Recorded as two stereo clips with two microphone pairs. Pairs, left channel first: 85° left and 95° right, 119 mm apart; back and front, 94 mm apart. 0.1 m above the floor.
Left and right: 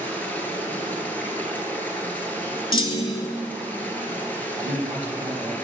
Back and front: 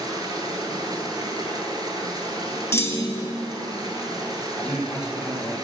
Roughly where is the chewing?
No chewing in this recording.